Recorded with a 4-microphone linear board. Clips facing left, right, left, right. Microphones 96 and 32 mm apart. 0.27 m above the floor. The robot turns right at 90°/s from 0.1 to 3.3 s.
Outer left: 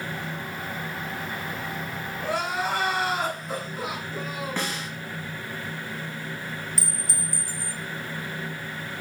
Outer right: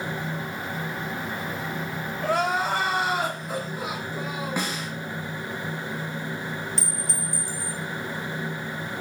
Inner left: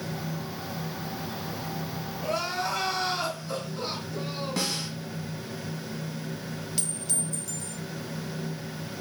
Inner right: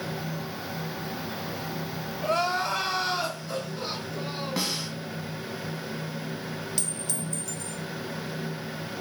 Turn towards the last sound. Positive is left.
turn(degrees=5)  # may be behind; listen again after turning